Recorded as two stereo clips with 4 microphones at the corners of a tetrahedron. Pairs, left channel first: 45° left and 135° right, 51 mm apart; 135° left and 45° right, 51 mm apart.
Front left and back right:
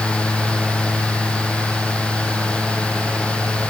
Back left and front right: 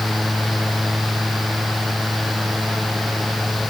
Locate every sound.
Only background noise.